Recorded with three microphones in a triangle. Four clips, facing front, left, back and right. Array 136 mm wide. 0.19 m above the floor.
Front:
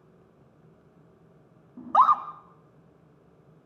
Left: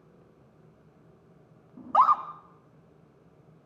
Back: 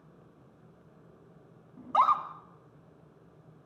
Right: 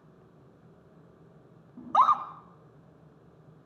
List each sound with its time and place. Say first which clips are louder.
1.8 s a scream: left 1 dB, front 5 dB; 10° left, 1.7 m